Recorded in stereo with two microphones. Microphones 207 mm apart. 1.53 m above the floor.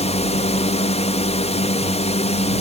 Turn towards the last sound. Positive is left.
turn(degrees=30)  # may be behind; listen again after turning